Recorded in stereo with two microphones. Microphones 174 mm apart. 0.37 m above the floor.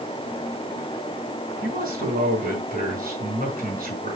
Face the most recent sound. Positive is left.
turn(degrees=-55)  # may be behind; listen again after turning